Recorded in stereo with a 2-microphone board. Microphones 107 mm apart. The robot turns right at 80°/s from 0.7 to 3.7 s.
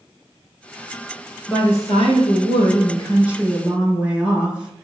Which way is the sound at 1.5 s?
10° left.